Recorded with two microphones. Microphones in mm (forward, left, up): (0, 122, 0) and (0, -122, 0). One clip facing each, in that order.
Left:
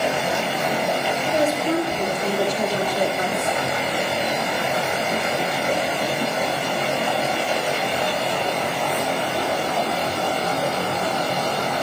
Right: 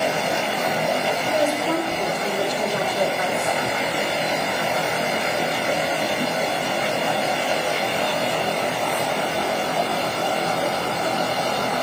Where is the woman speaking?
20° left (ahead or behind), 4 m; by 3.6 s 45° left (ahead or behind), 3.5 m.